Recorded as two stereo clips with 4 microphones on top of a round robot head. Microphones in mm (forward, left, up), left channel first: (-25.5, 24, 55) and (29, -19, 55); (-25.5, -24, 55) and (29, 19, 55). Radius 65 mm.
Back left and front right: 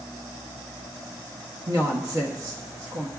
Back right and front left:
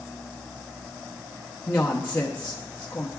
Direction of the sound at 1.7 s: 75° right.